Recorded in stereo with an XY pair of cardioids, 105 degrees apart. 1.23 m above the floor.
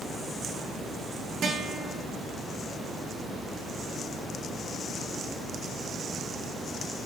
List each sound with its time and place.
1.4 s a guitar: 55° right, 1.5 m